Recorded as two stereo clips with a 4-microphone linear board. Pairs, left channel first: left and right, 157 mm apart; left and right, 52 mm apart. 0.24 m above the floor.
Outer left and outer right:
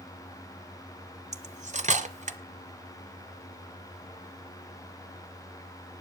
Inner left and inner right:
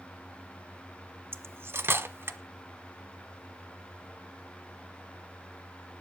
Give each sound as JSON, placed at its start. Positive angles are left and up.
{"t": 1.3, "sound": "cutlery clinking", "side_deg": -50, "distance_m": 1.1}